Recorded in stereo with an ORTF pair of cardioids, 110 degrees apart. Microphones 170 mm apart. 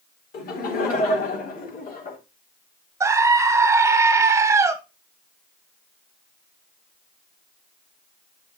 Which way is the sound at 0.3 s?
60° left.